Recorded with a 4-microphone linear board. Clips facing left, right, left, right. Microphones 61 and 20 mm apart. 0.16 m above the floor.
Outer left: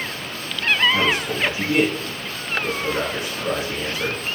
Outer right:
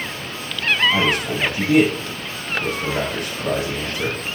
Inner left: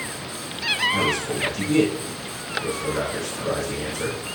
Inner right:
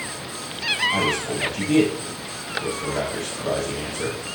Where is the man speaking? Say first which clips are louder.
Outer right 1 dB, even; 55° right (ahead or behind), 3.5 m.